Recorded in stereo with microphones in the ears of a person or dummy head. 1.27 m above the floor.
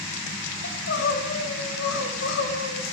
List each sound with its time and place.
0.6 s crying: 75° left (ahead or behind), 3 m